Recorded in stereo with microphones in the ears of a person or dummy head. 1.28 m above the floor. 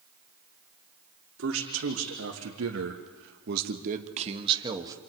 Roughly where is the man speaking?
Right.